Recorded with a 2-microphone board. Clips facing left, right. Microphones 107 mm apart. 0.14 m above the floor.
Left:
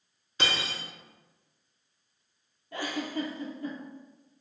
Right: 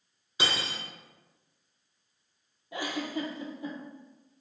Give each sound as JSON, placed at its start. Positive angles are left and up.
{"t": 0.4, "sound": "cutlery clinking", "side_deg": -10, "distance_m": 0.6}
{"t": 2.7, "sound": "a giggle", "side_deg": -15, "distance_m": 0.7}